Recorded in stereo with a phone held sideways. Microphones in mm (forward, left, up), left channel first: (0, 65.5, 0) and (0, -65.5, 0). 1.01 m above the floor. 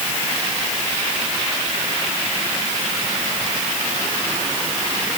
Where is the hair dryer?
I don't hear a hair dryer.